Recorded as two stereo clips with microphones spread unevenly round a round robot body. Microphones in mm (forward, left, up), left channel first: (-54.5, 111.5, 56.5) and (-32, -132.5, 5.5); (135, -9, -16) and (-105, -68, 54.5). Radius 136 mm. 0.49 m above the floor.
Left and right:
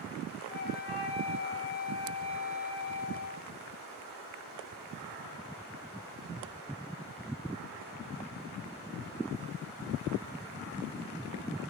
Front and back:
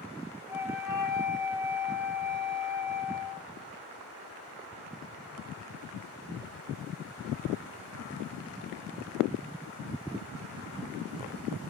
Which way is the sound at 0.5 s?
90° left.